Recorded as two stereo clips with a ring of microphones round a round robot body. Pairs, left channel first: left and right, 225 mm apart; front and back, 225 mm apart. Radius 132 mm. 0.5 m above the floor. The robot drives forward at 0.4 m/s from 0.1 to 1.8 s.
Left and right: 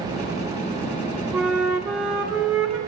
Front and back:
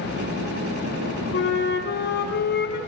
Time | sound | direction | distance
1.3 | a flute | 5° right | 0.8 m